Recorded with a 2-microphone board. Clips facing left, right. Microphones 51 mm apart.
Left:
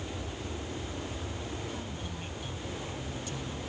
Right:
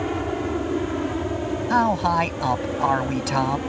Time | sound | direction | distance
0.0 | an aircraft | 55° right (ahead or behind) | ?
1.7 | a man speaking | 85° right | ?